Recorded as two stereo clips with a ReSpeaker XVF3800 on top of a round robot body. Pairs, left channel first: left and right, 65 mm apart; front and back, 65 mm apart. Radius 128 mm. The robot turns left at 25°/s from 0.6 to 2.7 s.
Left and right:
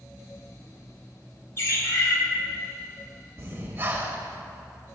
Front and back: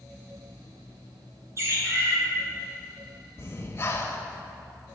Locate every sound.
1.6 s a bird: 140° left, 1.9 m; by 2.2 s 125° left, 1.9 m
3.4 s breathing: 45° right, 1.3 m